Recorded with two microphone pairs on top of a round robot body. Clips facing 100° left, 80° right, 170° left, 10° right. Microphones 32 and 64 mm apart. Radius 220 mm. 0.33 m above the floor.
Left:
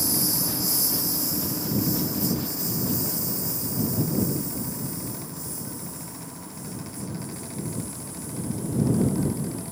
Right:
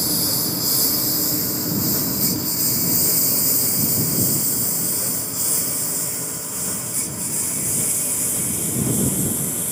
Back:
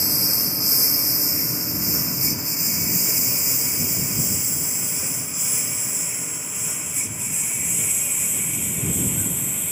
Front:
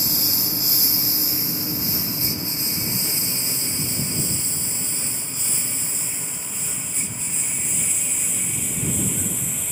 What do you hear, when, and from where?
0.0 s a lawn mower: 120° right; by 9.7 s 100° right